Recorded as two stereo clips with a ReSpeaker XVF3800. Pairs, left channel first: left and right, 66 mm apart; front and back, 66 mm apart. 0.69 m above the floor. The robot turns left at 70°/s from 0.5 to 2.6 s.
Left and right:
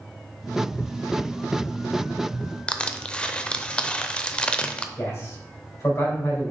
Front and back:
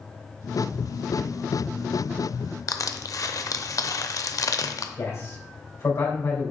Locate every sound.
2.7 s crushing: 20° left, 0.6 m
5.0 s a man speaking: 45° left, 3 m